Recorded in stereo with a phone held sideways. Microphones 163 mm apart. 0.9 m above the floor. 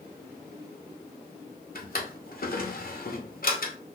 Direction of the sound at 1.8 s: 65° left (ahead or behind).